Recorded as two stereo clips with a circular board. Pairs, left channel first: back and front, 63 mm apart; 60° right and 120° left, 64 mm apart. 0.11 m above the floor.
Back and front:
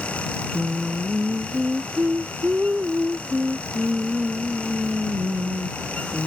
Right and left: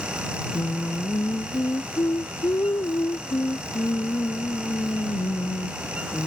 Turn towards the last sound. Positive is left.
turn(degrees=-65)